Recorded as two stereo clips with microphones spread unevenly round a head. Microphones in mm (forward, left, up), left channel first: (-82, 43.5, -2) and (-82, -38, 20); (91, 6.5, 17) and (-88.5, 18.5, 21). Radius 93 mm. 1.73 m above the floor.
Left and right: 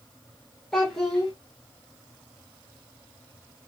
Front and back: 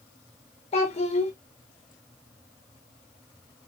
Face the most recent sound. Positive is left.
turn(degrees=-20)